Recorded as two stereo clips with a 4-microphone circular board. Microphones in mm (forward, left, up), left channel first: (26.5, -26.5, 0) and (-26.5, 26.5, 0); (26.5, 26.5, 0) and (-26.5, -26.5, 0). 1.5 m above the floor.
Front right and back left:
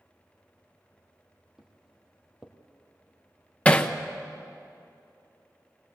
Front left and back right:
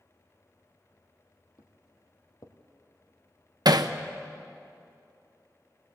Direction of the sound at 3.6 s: 115° right.